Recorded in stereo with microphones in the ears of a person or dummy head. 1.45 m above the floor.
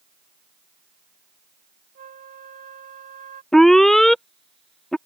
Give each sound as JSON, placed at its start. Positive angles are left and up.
{"t": 1.9, "sound": "a flute", "side_deg": -35}
{"t": 3.5, "sound": "an alarm", "side_deg": 0}